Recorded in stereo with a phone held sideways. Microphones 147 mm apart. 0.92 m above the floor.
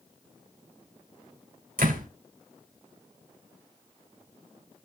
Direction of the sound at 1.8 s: 85° right.